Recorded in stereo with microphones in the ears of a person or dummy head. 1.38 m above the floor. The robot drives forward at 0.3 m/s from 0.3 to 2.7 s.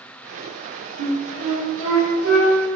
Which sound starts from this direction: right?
A flute, at 1.0 s.